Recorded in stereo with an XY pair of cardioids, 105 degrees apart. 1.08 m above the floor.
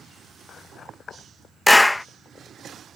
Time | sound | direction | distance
1.7 | a clap | 15° left | ?